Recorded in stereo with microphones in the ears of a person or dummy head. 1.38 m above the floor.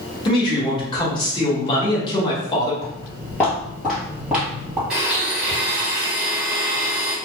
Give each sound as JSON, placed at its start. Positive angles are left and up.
{"t": 0.2, "sound": "a man speaking", "side_deg": 25, "distance_m": 1.4}
{"t": 2.8, "sound": "footsteps", "side_deg": 25, "distance_m": 1.5}
{"t": 4.9, "sound": "a blender", "side_deg": -5, "distance_m": 1.1}